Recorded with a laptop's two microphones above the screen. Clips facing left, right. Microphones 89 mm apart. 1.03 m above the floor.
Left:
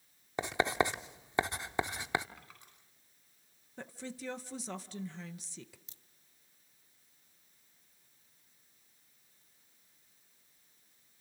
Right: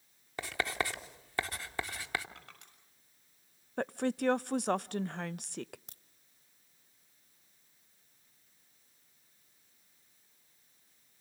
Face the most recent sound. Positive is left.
turn(degrees=-60)  # may be behind; listen again after turning